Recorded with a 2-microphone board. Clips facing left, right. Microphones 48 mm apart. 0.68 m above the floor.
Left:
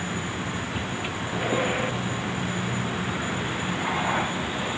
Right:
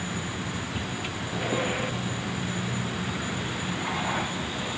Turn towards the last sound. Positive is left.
turn(degrees=15)  # may be behind; listen again after turning